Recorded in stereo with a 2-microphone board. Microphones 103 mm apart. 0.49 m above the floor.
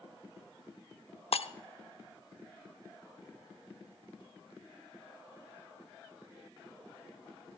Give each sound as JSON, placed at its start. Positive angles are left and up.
{"t": 1.3, "sound": "breaking glass", "side_deg": 70, "distance_m": 0.5}